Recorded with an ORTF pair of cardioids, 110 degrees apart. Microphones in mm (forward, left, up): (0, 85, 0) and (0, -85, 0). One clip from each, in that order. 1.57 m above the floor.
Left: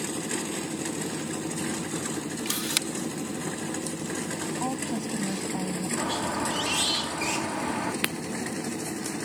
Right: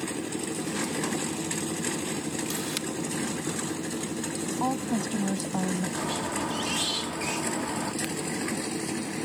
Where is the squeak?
20° left.